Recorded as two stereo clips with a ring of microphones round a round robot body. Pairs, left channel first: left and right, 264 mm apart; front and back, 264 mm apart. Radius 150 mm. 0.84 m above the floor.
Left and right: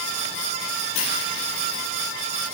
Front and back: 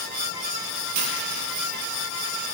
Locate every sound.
0.9 s a dropped coin: 140° left, 7 m